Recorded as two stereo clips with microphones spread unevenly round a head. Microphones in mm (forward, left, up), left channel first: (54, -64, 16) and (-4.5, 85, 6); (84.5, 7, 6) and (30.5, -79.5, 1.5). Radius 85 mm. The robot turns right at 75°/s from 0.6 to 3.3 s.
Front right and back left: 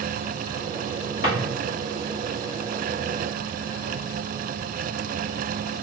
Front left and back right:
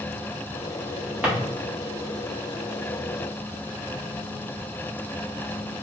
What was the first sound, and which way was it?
A drawer, 45° right.